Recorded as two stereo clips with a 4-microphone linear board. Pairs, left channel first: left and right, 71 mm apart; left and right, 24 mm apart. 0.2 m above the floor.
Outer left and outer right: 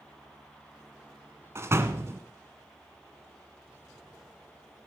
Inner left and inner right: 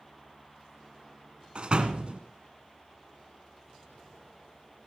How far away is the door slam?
About 1.3 m.